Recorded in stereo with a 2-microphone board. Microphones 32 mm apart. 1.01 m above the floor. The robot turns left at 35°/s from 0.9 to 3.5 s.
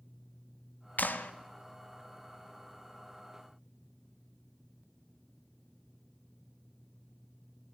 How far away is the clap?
About 0.5 m.